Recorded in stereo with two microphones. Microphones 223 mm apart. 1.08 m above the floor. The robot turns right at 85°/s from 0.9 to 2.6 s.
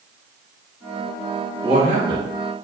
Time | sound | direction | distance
1.6 | a man speaking | 160° right | 1.0 m